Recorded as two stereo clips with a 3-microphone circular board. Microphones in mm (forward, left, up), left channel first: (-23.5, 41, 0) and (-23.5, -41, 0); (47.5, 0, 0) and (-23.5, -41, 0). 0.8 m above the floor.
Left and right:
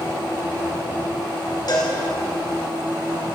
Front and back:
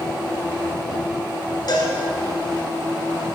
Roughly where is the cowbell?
Ahead left.